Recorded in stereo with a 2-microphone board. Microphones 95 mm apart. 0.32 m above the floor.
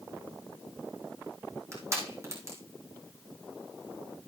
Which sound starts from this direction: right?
Crushing, at 1.7 s.